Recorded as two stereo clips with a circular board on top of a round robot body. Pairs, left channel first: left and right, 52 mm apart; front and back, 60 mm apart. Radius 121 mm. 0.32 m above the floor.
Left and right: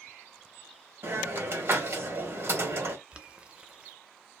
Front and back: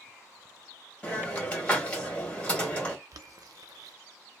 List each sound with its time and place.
1.0 s a hiss: 70° right, 1.7 m
3.1 s boiling: 160° right, 0.6 m